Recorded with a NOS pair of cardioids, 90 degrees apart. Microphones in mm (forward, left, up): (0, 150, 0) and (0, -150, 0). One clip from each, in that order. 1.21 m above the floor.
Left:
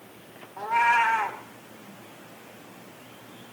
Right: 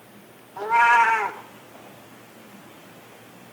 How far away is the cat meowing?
About 1.9 m.